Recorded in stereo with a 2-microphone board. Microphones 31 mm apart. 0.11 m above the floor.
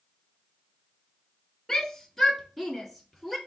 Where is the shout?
10° left (ahead or behind), 1.1 m; by 3.4 s 5° right (ahead or behind), 1.7 m.